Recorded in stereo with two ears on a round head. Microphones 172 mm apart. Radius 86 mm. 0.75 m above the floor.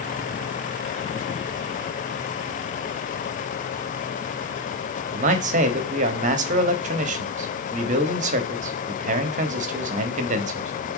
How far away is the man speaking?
About 1.2 m.